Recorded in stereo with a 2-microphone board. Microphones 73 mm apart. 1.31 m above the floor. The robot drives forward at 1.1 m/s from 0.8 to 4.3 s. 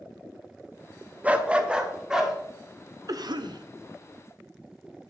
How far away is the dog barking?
About 0.7 m.